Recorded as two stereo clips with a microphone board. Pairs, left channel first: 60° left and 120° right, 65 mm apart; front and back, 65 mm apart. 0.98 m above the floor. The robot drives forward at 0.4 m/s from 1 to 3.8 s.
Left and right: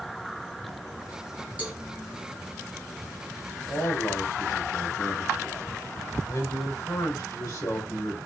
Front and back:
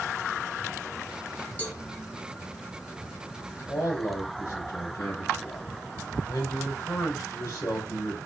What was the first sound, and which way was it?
A cowbell, 60° right.